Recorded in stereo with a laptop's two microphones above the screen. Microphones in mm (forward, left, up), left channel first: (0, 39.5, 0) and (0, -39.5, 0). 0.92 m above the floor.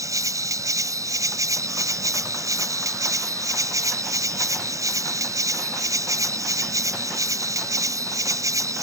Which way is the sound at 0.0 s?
45° right (ahead or behind).